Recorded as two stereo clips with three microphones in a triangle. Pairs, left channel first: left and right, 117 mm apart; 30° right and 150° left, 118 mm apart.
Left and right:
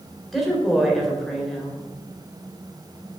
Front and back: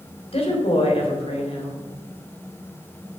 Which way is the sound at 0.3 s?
Straight ahead.